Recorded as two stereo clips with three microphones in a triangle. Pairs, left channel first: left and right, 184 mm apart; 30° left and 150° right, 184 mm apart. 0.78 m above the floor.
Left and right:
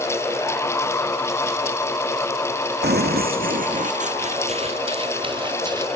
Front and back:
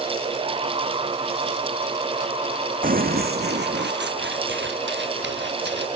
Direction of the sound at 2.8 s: 110° right.